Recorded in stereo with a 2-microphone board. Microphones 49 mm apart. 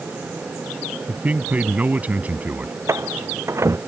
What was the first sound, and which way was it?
A man speaking, 35° right (ahead or behind).